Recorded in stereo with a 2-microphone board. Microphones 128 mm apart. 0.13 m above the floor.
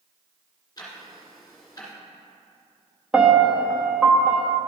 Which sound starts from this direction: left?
Ticking, at 0.8 s.